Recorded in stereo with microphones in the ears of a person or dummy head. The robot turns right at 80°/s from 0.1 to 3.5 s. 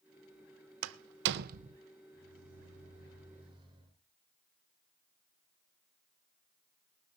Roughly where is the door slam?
Right.